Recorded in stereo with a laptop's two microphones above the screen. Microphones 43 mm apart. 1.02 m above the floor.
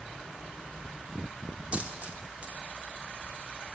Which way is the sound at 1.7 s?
35° right (ahead or behind).